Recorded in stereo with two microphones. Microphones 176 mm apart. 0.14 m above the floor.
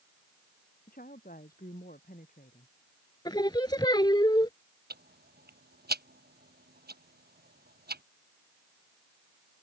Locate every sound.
0.9 s a woman speaking: 55° left (ahead or behind)
3.2 s singing: 25° left (ahead or behind)
4.9 s ticking: 65° right (ahead or behind)